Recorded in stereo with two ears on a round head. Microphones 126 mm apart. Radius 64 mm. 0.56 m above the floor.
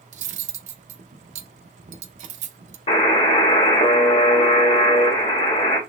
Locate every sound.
0.1 s cutlery clinking: 55° right (ahead or behind), 0.6 m
2.9 s a buzzer: 45° left (ahead or behind), 1.7 m